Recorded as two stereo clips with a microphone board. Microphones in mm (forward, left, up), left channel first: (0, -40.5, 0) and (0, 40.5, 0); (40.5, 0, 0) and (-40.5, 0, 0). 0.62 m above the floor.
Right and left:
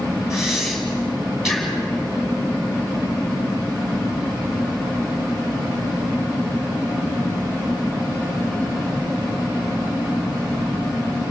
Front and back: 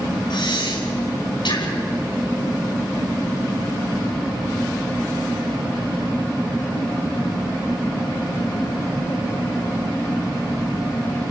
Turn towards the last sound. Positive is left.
turn(degrees=5)